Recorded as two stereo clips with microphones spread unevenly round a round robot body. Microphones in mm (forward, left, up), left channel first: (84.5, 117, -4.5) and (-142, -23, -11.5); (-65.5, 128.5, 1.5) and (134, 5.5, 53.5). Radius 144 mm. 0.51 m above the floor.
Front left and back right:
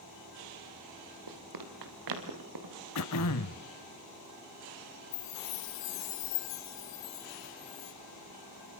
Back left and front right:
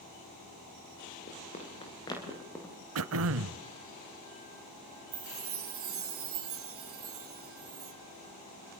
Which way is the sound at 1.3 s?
145° right.